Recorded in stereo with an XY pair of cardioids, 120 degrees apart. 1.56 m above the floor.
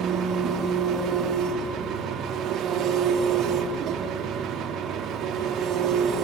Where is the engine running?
60° right, 3.5 m.